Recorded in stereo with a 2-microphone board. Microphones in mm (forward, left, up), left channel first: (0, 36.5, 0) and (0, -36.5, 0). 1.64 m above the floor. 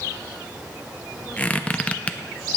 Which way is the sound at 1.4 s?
15° left (ahead or behind).